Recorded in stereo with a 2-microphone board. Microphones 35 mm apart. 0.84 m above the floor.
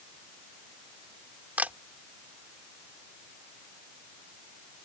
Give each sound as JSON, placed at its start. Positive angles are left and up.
{"t": 1.6, "sound": "a camera shutter", "side_deg": -45}